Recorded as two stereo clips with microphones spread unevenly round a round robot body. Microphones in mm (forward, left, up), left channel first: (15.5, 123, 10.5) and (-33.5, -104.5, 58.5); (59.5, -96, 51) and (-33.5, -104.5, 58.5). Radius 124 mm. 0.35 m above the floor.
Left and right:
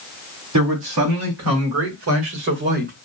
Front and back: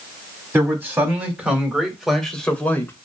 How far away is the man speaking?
About 4 m.